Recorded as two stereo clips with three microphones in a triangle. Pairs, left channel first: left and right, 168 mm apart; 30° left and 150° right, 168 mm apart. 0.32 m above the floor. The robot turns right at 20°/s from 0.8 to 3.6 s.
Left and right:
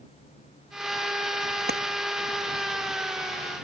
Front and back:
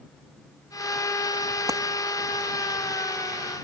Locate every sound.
1.7 s a clap: 80° right